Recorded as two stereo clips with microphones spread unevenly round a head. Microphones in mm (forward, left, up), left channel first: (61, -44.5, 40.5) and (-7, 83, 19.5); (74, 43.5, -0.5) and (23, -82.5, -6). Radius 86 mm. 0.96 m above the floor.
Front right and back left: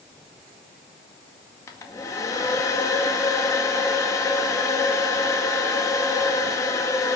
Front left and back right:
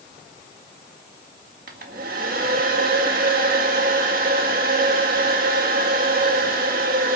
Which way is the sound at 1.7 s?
135° right.